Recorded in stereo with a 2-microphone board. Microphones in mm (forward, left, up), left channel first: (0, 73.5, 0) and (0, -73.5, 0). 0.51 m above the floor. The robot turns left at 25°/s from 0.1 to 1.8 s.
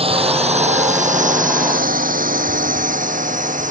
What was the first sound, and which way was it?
A drone, 40° right (ahead or behind).